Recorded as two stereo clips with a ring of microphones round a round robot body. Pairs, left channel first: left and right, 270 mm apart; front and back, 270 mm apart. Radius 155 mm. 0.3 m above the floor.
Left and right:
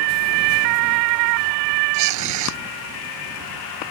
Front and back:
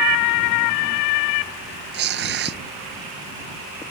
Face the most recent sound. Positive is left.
turn(degrees=-125)